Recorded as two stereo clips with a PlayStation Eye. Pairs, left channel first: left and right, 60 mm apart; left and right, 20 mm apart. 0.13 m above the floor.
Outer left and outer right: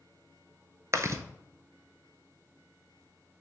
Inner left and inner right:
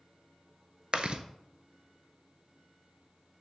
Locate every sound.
0.9 s chewing: 50° right (ahead or behind), 0.7 m